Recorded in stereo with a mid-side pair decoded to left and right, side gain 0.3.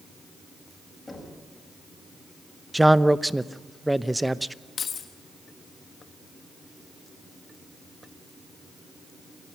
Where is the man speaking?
10° right, 0.8 m.